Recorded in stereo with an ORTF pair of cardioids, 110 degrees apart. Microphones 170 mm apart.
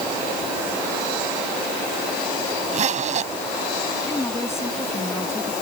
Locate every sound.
2.7 s a zipper: 45° right
4.0 s a woman speaking: 15° left